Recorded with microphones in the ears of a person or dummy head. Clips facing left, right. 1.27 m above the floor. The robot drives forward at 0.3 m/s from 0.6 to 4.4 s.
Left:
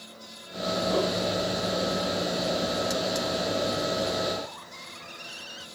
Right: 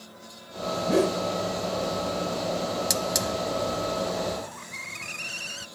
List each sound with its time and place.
0.9 s a whoosh: 25° right (ahead or behind); by 1.2 s 20° right (ahead or behind)
2.9 s a hiss: 40° right (ahead or behind)